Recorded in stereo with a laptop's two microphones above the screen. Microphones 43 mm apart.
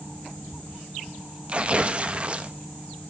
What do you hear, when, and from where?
1.5 s tearing paper: 30° right (ahead or behind), 0.6 m